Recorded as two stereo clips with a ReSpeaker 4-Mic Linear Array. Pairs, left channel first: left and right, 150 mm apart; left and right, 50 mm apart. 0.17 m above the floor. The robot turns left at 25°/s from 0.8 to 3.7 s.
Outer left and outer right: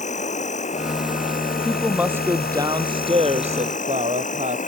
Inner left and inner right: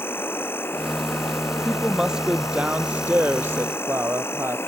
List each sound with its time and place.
0.0 s an insect: 130° left; by 4.7 s 55° left
1.6 s a woman speaking: straight ahead; by 4.6 s 55° right